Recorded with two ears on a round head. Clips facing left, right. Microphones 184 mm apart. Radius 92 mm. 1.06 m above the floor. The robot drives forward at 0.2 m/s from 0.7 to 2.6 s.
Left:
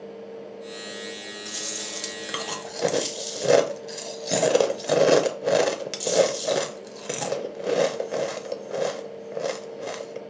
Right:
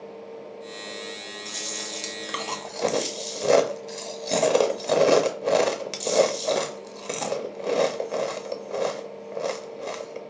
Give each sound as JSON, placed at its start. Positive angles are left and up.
{"t": 1.4, "sound": "chewing", "side_deg": 5, "distance_m": 0.6}